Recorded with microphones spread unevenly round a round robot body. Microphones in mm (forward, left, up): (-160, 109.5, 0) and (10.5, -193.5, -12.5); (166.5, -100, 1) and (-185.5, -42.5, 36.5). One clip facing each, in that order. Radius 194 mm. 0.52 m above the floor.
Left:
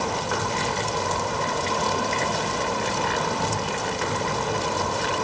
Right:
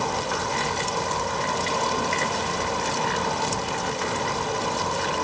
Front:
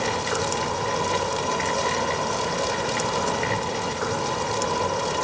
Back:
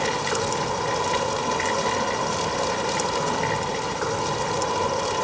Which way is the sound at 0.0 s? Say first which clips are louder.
Left 1 dB, even; 80° left.